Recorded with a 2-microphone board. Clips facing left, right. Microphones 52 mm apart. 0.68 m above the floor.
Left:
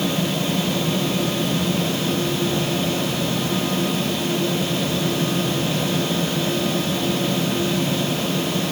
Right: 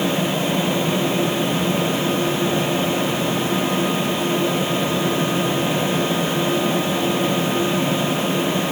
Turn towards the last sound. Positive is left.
No sound to turn to.